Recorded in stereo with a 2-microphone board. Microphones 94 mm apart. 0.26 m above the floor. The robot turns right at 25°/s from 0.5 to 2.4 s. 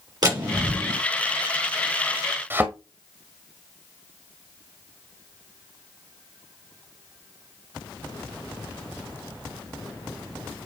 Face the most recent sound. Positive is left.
turn(degrees=-25)  # may be behind; listen again after turning